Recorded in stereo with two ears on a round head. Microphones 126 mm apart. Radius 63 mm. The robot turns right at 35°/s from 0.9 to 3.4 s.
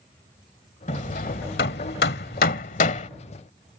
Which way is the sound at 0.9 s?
50° left (ahead or behind).